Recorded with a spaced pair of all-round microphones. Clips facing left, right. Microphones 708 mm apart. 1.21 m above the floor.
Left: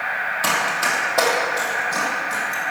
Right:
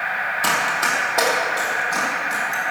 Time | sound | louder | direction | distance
0.4 | running footsteps | even | 5° left (ahead or behind) | 2.5 m